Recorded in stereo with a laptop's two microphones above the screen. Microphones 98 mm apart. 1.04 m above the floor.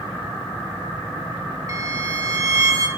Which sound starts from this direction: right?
A violin, at 1.7 s.